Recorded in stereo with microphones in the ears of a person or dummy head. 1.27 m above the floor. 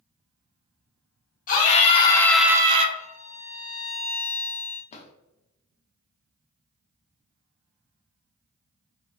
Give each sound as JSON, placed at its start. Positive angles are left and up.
{"t": 1.5, "sound": "a scream", "side_deg": 40, "distance_m": 1.1}
{"t": 3.0, "sound": "a violin", "side_deg": 40, "distance_m": 1.2}
{"t": 4.9, "sound": "a drawer", "side_deg": 35, "distance_m": 0.6}